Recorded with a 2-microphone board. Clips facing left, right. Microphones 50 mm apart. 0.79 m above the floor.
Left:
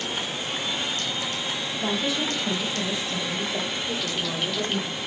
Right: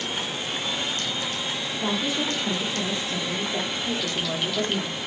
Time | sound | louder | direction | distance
1.8 | a woman speaking | even | 35° right (ahead or behind) | 3.5 m